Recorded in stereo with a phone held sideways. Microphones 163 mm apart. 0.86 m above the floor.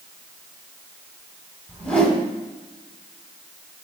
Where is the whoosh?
5° left (ahead or behind), 1.9 m.